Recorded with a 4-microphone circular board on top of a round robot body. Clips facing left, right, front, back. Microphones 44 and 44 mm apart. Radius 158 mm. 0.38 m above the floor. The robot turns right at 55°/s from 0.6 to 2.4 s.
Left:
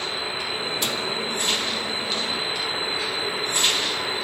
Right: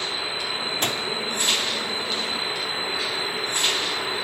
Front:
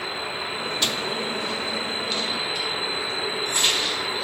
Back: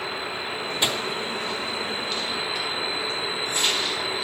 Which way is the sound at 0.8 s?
120° right.